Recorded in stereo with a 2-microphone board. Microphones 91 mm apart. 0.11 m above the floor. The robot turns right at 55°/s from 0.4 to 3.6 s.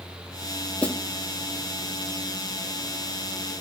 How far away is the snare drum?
About 0.8 m.